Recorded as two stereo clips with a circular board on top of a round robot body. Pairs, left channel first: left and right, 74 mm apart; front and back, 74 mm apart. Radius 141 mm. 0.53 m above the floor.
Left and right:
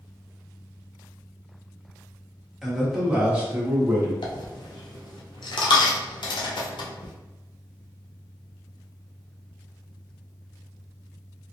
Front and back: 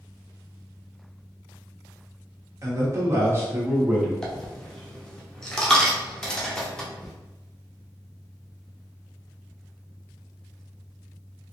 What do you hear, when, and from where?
2.6 s a man speaking: 175° left, 1.4 m; by 4.1 s 115° right, 1.4 m
4.2 s a dropped coin: 80° left, 0.7 m